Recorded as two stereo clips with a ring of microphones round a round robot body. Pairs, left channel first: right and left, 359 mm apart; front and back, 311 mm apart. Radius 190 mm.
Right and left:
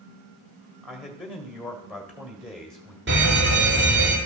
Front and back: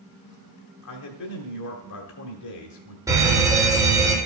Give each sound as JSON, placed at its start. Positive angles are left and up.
{"t": 0.8, "sound": "a man speaking", "azimuth_deg": 0, "distance_m": 1.4}
{"t": 3.1, "sound": "a fire alarm", "azimuth_deg": 110, "distance_m": 2.5}